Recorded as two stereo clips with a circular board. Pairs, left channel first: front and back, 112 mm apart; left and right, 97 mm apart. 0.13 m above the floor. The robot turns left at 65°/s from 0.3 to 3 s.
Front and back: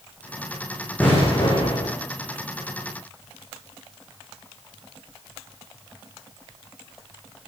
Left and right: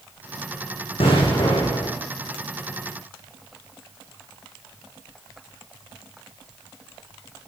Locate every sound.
1.0 s an explosion: 75° left, 9.5 m; by 2.0 s 15° left, 9.5 m